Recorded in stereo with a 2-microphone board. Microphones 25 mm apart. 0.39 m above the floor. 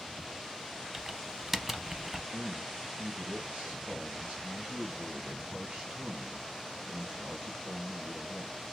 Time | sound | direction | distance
0.9 | typing on a keyboard | 10° right (ahead or behind) | 0.5 m
2.3 | a man speaking | 55° right (ahead or behind) | 2.5 m